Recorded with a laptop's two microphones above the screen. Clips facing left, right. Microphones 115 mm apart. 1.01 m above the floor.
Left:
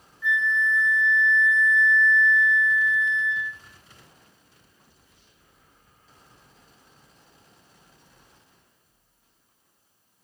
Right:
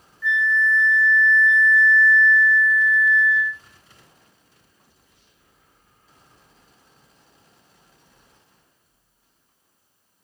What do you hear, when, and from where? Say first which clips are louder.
0.2 s a flute: right 3 dB; 15° left (ahead or behind), 0.5 m